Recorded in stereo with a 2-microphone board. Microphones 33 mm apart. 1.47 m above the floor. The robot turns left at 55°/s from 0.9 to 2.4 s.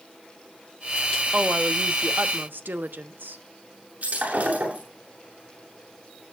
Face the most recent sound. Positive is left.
turn(degrees=-60)  # may be behind; listen again after turning